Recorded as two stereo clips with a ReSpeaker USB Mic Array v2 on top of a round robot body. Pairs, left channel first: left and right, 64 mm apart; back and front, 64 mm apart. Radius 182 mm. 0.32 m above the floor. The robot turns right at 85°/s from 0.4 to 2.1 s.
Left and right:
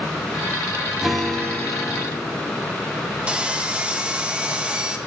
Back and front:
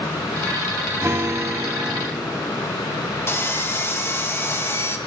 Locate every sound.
1.0 s a guitar: 10° right, 1.8 m; by 2.6 s 80° left, 1.8 m
3.3 s sawing: 155° right, 1.5 m